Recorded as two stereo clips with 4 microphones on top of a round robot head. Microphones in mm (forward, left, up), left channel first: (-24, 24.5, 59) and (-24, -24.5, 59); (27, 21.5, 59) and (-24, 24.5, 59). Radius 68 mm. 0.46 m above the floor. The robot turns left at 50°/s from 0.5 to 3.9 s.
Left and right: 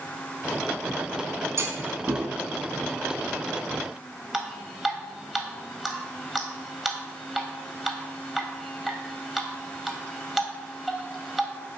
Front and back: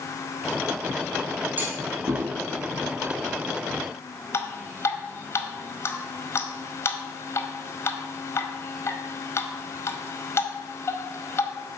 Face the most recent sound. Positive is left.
turn(degrees=-5)